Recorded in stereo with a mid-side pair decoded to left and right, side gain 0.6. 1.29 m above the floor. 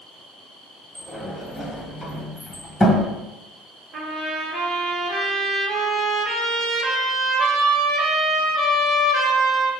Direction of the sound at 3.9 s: 45° right.